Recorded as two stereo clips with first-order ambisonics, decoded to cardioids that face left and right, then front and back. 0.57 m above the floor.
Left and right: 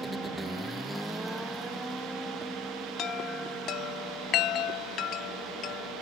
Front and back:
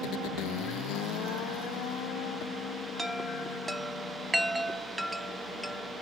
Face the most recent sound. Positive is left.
turn(degrees=105)